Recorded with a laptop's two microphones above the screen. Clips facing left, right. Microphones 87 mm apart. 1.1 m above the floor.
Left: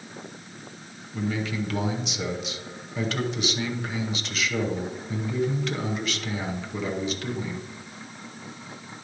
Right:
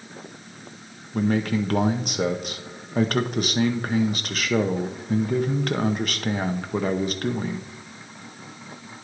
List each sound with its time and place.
1.1 s a man speaking: 50° right (ahead or behind), 0.7 m